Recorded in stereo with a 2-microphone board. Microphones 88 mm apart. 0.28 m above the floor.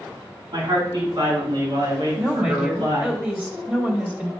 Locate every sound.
0.5 s a man speaking: 60° right (ahead or behind), 1.9 m; by 3.1 s 65° right (ahead or behind), 3.5 m
2.2 s a woman speaking: 15° right (ahead or behind), 0.9 m